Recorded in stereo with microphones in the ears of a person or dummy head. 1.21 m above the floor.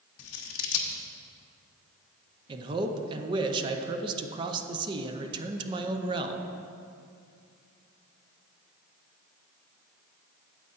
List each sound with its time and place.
0.2 s scissors: 70° left (ahead or behind), 1.1 m
2.5 s a man speaking: 25° right (ahead or behind), 0.7 m